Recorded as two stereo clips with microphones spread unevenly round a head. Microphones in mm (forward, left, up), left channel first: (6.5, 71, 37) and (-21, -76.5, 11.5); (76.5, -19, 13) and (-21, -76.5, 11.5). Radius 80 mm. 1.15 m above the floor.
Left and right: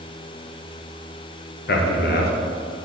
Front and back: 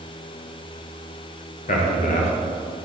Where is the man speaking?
55° left, 1.1 m.